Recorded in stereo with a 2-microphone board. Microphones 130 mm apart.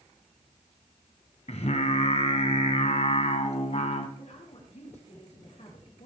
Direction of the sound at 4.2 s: 60° left (ahead or behind).